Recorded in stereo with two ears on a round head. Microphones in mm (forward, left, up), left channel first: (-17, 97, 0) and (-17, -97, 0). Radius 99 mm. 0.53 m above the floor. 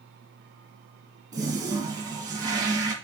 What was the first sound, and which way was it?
A toilet flushing, 15° right (ahead or behind).